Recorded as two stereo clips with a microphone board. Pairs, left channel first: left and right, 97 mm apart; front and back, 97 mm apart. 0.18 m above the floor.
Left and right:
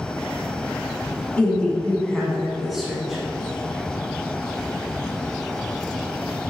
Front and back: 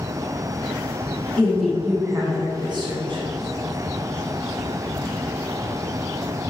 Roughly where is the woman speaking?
Ahead left.